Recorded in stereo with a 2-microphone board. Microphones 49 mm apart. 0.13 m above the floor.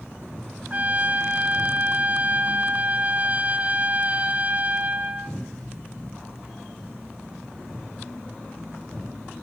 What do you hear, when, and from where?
0.7 s a trumpet: 30° right (ahead or behind), 0.8 m